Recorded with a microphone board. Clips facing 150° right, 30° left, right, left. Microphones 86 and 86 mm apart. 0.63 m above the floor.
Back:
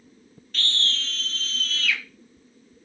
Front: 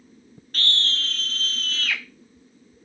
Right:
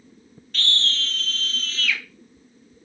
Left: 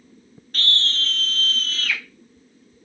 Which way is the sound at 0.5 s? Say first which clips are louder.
Front 2 dB, left 1 dB; 55° left.